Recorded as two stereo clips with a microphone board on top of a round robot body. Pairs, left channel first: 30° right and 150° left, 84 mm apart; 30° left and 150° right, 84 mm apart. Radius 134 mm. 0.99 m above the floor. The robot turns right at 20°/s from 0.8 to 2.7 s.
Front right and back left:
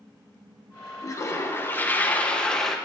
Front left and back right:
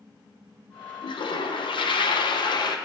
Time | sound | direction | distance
1.0 | a toilet flushing | 20° left | 0.9 m